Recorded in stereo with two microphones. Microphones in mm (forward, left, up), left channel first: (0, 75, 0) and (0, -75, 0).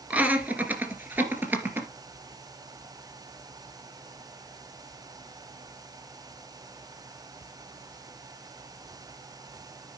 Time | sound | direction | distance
0.1 | laughter | 10° right (ahead or behind) | 1.9 m